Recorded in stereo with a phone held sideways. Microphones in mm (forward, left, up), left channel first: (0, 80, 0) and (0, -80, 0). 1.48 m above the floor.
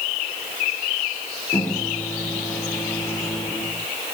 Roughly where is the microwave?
Centre.